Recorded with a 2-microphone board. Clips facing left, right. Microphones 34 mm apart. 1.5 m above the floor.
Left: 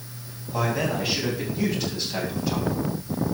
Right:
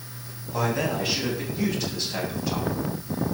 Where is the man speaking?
5° left (ahead or behind), 9 m; by 2.7 s centre (ahead or behind), 8.5 m.